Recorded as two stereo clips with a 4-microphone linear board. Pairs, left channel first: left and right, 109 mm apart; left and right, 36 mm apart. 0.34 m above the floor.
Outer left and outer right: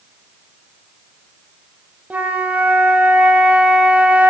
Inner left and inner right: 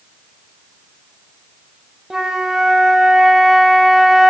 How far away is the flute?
About 0.7 m.